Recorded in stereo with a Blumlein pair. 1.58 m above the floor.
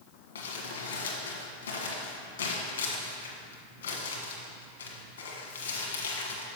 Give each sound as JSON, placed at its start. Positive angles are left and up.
{"t": 0.3, "sound": "crumpling", "azimuth_deg": 60, "distance_m": 1.5}